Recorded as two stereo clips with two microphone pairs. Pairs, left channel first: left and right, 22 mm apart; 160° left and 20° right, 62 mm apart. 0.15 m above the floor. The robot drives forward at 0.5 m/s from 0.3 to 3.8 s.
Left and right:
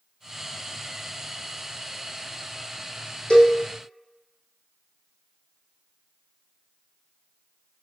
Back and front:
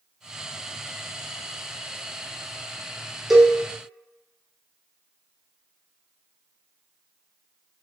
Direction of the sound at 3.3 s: 65° left.